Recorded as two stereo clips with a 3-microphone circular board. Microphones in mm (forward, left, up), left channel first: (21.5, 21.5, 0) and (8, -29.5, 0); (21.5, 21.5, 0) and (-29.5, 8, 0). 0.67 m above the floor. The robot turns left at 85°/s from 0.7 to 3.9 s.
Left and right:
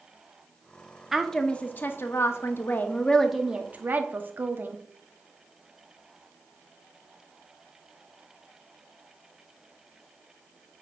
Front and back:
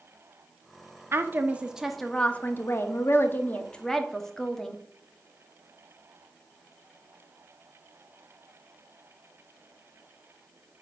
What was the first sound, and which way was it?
A woman speaking, 175° left.